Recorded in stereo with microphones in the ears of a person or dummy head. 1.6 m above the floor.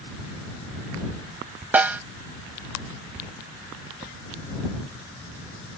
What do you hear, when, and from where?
1.7 s a snare drum: 5° right (ahead or behind)